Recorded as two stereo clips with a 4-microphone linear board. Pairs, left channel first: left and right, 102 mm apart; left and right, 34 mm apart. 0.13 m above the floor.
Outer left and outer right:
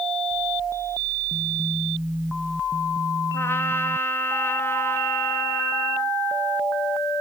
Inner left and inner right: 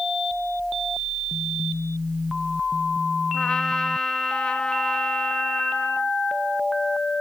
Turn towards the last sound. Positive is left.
turn(degrees=25)  # may be behind; listen again after turning